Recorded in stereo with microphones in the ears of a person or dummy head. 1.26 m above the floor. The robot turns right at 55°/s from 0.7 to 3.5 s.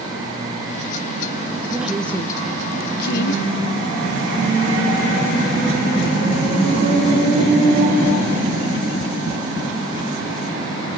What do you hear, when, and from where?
1.7 s a woman speaking: 15° right (ahead or behind), 0.6 m; by 3.4 s 75° left (ahead or behind), 0.6 m